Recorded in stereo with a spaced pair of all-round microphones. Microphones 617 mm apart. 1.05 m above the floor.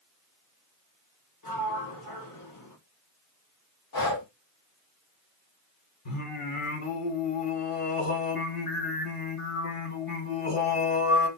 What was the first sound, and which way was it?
A sliding door, 35° left (ahead or behind).